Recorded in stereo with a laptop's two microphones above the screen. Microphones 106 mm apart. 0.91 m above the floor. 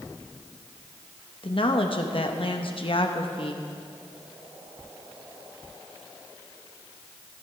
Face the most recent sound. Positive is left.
turn(degrees=55)  # may be behind; listen again after turning